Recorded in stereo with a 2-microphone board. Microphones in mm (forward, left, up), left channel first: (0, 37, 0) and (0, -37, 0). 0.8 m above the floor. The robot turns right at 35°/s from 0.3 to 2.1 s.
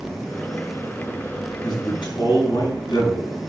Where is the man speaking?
85° left, 5.5 m; by 3.4 s 80° left, 5.5 m.